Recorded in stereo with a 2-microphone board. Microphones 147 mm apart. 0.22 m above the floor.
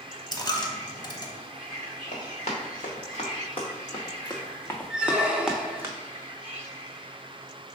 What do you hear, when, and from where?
0.3 s a dropped coin: 30° left (ahead or behind), 0.6 m
2.1 s running footsteps: 55° left (ahead or behind), 2 m; by 5.9 s 20° right (ahead or behind), 0.9 m
4.9 s a squeak: 5° right (ahead or behind), 0.5 m